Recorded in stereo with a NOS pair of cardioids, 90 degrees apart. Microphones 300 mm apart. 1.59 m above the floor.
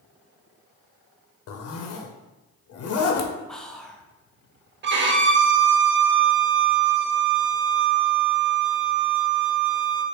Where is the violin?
40° right, 0.5 m.